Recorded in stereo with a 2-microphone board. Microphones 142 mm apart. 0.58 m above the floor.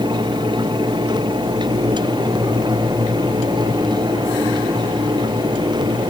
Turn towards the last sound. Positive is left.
No sound to turn to.